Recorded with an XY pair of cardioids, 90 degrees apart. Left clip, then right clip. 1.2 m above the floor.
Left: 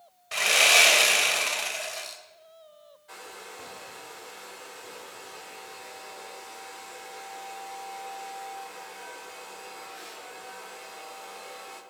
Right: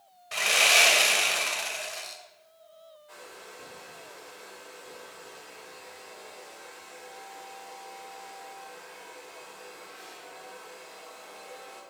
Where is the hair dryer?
55° left, 3.5 m.